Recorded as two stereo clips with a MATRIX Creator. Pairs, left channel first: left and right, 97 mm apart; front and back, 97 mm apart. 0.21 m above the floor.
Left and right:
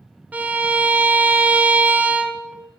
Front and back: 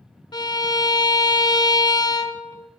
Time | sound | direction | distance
0.3 | a violin | 20° right | 0.7 m